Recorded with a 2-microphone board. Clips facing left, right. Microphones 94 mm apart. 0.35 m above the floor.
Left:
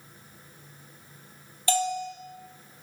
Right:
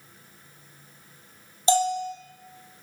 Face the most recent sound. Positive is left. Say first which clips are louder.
# right 5 dB
turn(degrees=-25)  # may be behind; listen again after turning